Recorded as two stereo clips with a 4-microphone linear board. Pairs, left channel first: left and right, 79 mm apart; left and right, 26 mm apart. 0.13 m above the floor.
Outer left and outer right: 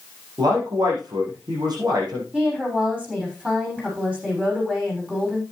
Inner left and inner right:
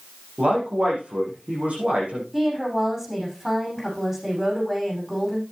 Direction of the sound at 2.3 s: 15° right (ahead or behind).